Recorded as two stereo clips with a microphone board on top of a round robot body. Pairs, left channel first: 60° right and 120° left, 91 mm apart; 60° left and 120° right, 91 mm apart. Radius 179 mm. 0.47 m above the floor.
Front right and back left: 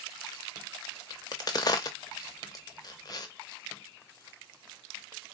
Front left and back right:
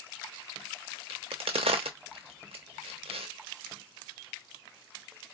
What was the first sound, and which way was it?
A crack, 110° right.